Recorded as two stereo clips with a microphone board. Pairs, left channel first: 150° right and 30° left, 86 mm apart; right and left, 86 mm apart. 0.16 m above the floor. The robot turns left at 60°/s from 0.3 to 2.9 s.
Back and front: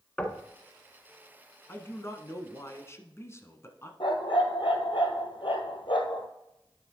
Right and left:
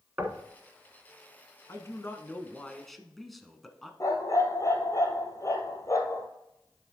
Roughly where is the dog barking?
Behind right.